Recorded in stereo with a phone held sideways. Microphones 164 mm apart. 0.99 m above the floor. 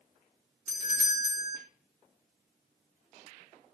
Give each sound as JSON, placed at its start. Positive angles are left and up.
{"t": 0.7, "sound": "a doorbell", "side_deg": 50, "distance_m": 3.5}